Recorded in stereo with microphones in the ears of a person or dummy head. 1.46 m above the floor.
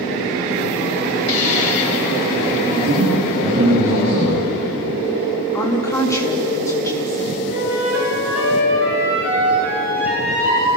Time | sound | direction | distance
1.3 | a hiss | 45° left (ahead or behind) | 4 m
2.8 | a man speaking | 25° right (ahead or behind) | 8.5 m
5.5 | a woman speaking | 10° left (ahead or behind) | 3 m
7.5 | a flute | 10° right (ahead or behind) | 7.5 m